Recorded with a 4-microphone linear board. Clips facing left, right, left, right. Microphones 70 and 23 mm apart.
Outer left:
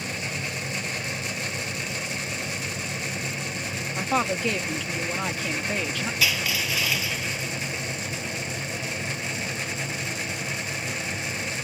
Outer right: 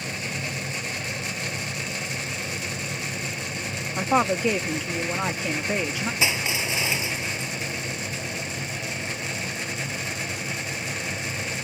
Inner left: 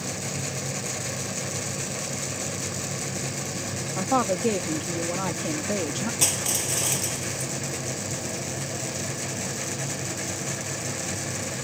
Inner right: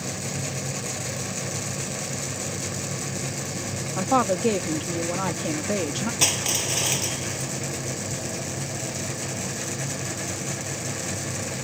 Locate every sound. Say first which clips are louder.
4.0 s a woman speaking: outer right 4 dB, inner right 2 dB; 15° right (ahead or behind)
6.2 s crushing: even, inner right 3 dB; 25° right (ahead or behind)